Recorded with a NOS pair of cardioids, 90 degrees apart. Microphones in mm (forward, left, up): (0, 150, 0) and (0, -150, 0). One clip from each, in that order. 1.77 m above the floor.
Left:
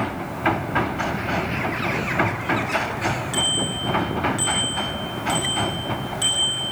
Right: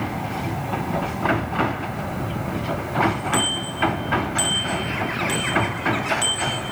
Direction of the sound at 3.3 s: 30° right.